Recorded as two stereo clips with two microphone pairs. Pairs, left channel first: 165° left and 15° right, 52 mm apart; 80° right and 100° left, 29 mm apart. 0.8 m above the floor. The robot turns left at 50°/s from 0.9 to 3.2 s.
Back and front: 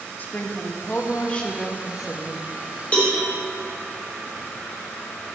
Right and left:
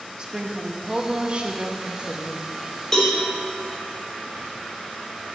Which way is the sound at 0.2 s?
135° left.